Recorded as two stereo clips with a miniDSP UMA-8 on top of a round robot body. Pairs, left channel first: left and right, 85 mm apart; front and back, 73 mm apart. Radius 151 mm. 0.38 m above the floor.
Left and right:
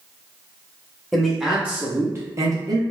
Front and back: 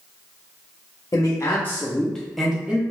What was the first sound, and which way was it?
A man speaking, straight ahead.